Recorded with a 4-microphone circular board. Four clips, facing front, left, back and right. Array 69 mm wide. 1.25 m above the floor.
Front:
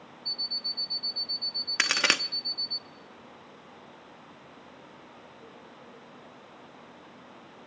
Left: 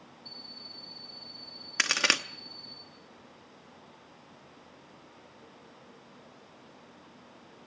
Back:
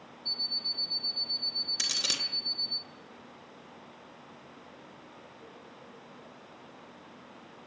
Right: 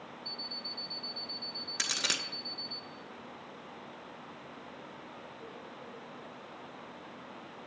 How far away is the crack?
About 0.8 m.